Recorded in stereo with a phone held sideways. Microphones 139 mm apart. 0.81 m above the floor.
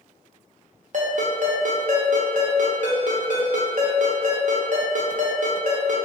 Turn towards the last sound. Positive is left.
turn(degrees=-60)  # may be behind; listen again after turning